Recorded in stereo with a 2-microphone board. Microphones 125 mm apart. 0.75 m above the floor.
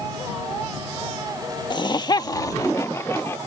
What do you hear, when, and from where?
1.7 s laughter: 35° left (ahead or behind); by 3.4 s 20° left (ahead or behind)